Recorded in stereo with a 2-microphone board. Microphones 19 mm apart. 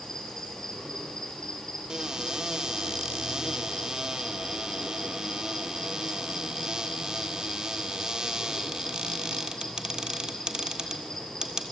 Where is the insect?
35° left (ahead or behind), 7 m.